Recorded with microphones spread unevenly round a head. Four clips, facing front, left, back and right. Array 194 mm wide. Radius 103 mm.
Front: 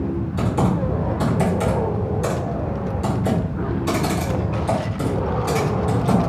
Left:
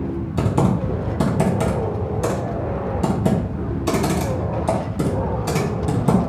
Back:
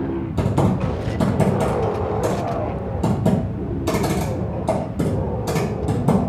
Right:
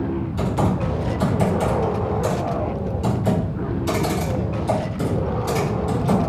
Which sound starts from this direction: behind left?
Typing on a keyboard, at 0.4 s.